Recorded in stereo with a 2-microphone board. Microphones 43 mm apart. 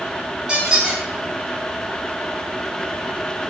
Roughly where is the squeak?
Right.